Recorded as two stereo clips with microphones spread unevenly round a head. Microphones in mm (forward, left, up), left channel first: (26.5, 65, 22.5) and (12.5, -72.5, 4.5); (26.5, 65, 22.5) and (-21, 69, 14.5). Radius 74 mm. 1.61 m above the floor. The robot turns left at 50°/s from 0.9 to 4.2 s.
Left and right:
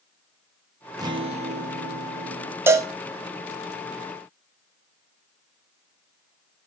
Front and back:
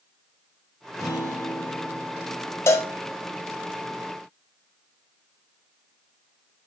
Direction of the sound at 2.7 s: 20° right.